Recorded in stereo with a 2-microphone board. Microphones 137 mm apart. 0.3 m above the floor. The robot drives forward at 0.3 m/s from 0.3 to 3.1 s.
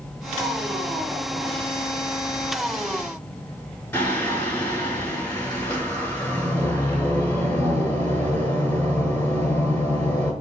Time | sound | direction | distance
3.9 | singing | 10° left (ahead or behind) | 1.1 m